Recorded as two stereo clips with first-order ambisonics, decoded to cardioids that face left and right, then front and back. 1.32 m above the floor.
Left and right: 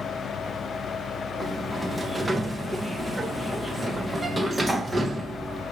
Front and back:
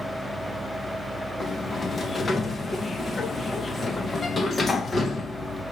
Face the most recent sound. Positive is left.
turn(degrees=-25)